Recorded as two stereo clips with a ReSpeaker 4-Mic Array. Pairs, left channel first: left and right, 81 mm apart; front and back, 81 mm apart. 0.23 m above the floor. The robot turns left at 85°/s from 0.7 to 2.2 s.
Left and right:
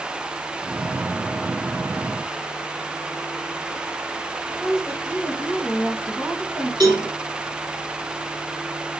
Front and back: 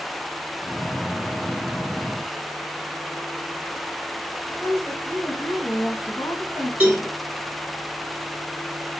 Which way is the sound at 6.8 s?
110° right.